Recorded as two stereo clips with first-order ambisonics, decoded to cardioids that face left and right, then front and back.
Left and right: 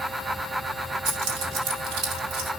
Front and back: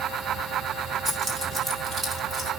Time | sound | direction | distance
1.1 | keys jangling | 120° right | 7 m